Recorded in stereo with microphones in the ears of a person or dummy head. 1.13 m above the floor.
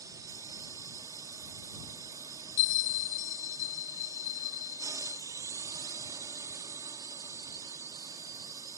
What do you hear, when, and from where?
0.0 s a drone: 25° right (ahead or behind)
2.6 s a bell: 45° left (ahead or behind)